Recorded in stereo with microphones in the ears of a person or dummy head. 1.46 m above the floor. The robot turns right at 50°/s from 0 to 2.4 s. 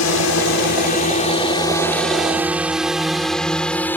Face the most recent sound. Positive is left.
turn(degrees=10)  # may be behind; listen again after turning